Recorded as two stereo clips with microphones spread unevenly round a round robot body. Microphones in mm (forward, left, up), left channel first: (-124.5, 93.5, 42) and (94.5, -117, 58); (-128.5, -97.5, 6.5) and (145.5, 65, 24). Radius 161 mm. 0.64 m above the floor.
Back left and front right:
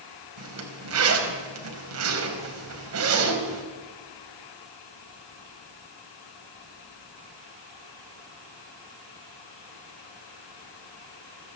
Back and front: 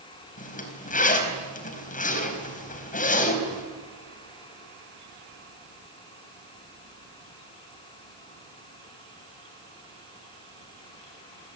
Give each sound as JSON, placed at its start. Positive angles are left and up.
{"t": 0.4, "sound": "a zipper", "azimuth_deg": -85, "distance_m": 4.5}